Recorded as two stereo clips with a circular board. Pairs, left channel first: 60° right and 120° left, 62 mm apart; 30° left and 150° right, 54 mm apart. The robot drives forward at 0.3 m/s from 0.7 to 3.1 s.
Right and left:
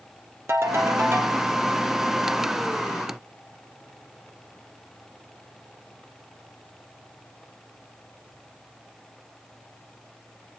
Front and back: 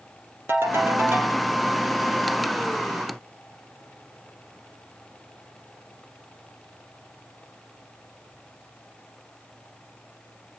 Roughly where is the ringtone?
Behind.